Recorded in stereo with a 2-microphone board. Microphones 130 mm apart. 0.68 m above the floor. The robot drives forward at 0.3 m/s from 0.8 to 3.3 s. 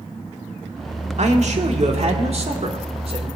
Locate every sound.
1.2 s a man speaking: 60° right (ahead or behind), 1.6 m; by 3.3 s 45° right (ahead or behind), 1.9 m